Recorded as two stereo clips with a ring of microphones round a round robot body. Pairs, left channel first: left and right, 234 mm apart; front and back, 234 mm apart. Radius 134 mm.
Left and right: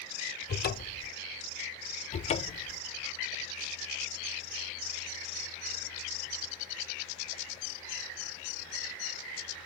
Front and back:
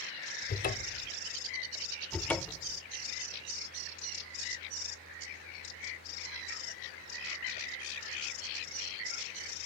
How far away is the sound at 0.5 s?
About 1.1 m.